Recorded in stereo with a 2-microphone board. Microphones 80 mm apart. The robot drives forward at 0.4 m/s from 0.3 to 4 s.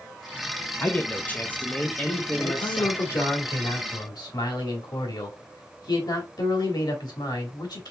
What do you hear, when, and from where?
0.8 s a man speaking: 25° left (ahead or behind), 0.6 m; by 3.0 s 10° left (ahead or behind), 1.1 m
2.4 s a man speaking: 45° left (ahead or behind), 2 m; by 7.9 s 60° left (ahead or behind), 1.7 m